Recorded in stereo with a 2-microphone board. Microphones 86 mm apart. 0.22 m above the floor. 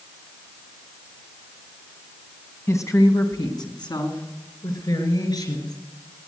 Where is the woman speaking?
35° left (ahead or behind), 1.8 m; by 5.8 s 55° left (ahead or behind), 4 m.